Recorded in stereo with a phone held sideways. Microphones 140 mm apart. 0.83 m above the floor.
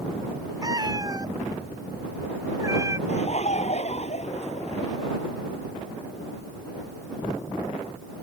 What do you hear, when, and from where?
0.6 s a cat meowing: 30° right (ahead or behind); by 3.0 s 20° right (ahead or behind)
3.1 s laughter: 55° left (ahead or behind)